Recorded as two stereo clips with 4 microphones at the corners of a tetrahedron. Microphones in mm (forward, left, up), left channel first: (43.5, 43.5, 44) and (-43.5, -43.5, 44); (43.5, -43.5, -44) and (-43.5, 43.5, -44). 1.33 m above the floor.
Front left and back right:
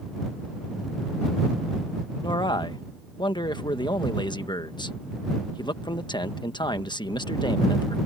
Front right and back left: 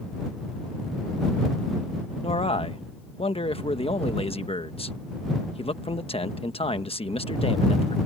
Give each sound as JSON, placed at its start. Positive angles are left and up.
{"t": 2.2, "sound": "a man speaking", "azimuth_deg": -5}